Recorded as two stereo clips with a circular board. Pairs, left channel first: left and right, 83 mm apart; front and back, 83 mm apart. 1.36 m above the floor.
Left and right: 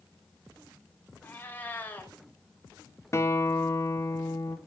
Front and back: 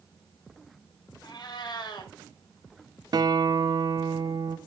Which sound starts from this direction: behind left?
A guitar, at 3.1 s.